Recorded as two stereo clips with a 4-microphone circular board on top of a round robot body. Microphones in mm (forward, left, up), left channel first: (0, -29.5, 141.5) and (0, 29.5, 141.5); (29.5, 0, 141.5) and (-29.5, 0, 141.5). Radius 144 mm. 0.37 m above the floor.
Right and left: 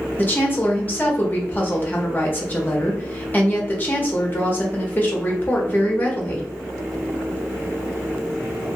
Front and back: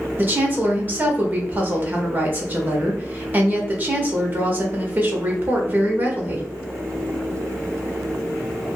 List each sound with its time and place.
0.2 s a woman speaking: 135° right, 1.4 m